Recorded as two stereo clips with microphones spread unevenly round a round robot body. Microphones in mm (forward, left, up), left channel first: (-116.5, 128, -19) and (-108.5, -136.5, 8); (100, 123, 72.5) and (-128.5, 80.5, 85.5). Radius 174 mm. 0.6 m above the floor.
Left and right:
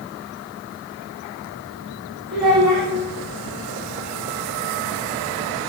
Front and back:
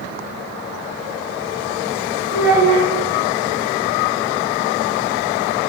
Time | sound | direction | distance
2.3 | a child speaking | 45° right | 1.2 m